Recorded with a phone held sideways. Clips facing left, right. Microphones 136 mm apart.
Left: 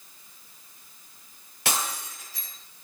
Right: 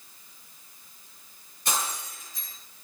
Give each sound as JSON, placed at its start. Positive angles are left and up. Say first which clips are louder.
{"t": 1.6, "sound": "breaking glass", "louder": "left 1 dB", "side_deg": 80, "distance_m": 9.0}